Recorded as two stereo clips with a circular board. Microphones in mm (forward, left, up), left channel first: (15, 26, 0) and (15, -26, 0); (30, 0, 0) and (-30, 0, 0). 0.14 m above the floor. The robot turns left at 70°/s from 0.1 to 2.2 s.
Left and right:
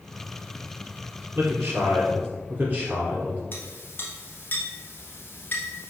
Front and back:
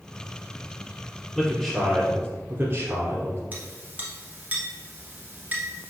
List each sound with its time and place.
1.4 s a man speaking: 80° right, 1.5 m; by 3.4 s 140° right, 1.5 m
3.5 s a clink: 125° left, 1.3 m